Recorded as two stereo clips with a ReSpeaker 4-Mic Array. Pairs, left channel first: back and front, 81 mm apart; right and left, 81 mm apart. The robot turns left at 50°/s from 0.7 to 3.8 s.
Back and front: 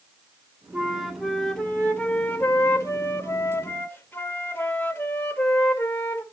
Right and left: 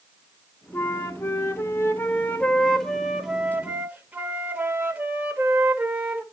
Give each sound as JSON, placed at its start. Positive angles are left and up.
{"t": 0.7, "sound": "a flute", "azimuth_deg": -65, "distance_m": 0.8}